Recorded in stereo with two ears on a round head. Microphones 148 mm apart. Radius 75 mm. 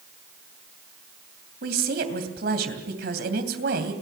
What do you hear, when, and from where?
1.6 s a woman speaking: 65° right (ahead or behind), 3 m